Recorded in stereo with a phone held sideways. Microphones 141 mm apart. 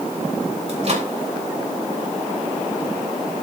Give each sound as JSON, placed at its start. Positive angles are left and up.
{"t": 0.7, "sound": "a microwave", "side_deg": -50, "distance_m": 3.5}